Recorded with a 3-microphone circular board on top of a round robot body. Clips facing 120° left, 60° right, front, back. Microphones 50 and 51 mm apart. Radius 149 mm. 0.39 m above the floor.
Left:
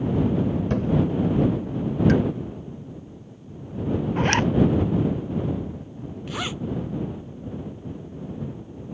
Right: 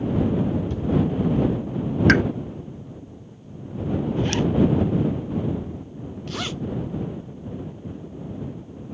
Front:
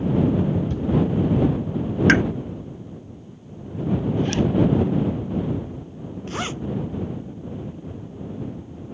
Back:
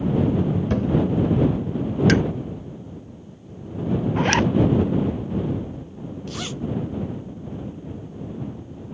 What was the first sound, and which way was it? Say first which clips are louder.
A thud: left 3 dB, back 3 dB; 150° left.